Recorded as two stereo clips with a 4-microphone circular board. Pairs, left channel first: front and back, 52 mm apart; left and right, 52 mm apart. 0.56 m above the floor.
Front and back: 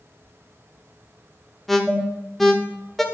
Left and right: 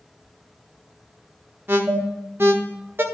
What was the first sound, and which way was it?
An alarm, 85° right.